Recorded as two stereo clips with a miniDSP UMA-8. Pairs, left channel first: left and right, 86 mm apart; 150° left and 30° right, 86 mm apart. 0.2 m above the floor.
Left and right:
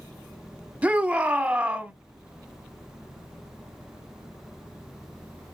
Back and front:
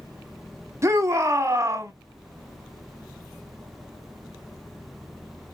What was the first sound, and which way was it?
A shout, 30° right.